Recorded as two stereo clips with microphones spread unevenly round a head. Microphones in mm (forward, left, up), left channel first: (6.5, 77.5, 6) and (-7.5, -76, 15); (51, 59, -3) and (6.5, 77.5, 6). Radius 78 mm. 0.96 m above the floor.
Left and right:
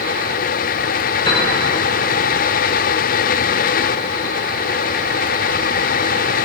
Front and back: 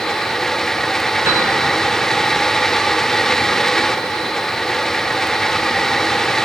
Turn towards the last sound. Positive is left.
turn(degrees=145)